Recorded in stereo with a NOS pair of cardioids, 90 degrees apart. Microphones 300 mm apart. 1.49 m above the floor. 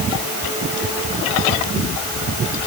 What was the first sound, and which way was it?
Only background noise.